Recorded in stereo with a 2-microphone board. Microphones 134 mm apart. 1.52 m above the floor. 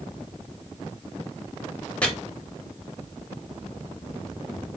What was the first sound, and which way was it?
Chopping, 10° left (ahead or behind).